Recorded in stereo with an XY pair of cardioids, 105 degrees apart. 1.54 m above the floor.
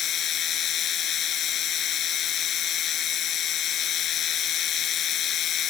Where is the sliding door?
No sliding door in this recording.